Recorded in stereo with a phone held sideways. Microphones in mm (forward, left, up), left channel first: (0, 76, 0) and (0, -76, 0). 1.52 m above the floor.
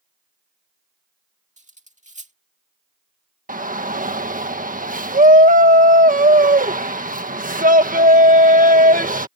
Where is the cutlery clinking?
50° right (ahead or behind).